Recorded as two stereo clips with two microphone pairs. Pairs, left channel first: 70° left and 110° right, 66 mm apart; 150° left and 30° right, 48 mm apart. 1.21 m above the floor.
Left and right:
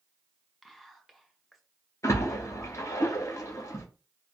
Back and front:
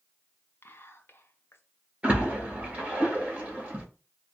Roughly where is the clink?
I don't hear a clink.